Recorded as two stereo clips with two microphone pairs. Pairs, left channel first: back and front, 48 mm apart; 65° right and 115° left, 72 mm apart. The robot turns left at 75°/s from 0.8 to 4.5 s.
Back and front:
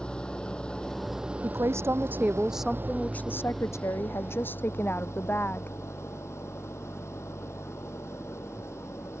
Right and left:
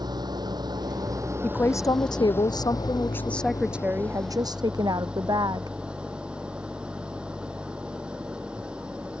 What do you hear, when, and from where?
0.0 s an engine running: 105° left; by 9.2 s 170° right
1.4 s a woman speaking: straight ahead; by 5.8 s 130° left